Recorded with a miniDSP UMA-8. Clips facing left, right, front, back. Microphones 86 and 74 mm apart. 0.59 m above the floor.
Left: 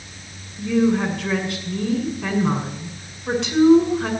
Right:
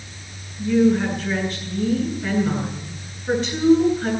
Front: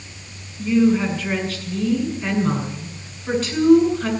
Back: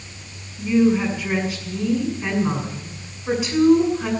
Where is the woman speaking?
105° left, 7 m.